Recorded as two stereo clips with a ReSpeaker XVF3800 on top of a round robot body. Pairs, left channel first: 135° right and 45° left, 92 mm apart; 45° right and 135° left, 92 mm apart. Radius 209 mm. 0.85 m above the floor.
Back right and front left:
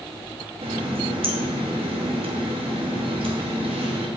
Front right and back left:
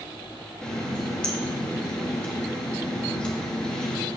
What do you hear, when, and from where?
0.6 s a running tap: 35° left, 1.1 m